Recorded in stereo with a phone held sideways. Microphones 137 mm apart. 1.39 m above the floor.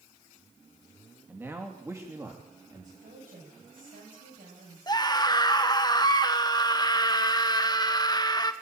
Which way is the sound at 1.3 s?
15° right (ahead or behind).